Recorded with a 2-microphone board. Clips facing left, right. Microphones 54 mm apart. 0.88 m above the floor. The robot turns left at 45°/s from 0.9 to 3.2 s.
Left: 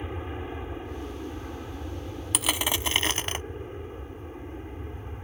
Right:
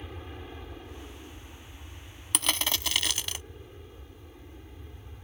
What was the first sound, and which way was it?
An aircraft, 150° left.